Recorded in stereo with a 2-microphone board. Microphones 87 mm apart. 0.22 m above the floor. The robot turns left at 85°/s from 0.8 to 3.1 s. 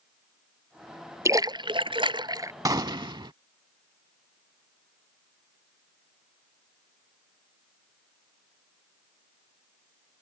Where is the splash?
35° right; by 2.5 s 145° right.